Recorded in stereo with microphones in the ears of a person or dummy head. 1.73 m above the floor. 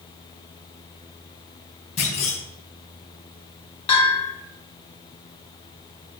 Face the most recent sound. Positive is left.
turn(degrees=30)  # may be behind; listen again after turning